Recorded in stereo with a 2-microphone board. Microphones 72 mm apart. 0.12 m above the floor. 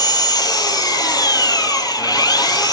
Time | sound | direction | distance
0.0 | an engine running | 65° left (ahead or behind) | 2.0 m